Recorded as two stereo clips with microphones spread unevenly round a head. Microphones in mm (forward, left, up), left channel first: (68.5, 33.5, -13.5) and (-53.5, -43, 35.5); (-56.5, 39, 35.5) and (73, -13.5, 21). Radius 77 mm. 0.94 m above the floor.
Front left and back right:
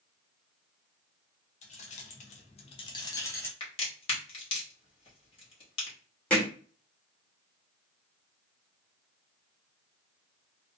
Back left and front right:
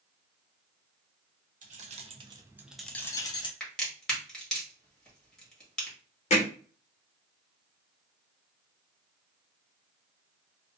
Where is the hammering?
115° left, 1.0 m.